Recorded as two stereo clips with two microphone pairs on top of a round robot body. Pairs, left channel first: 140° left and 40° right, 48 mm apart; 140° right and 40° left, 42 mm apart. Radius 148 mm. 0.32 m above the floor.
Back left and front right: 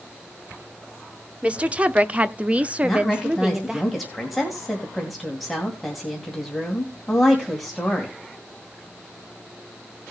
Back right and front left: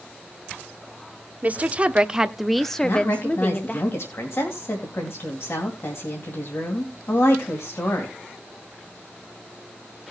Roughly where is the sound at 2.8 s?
Behind right.